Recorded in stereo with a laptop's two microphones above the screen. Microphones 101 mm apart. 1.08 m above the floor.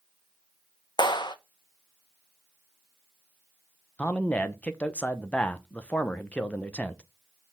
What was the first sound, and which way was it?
A clap, 45° left (ahead or behind).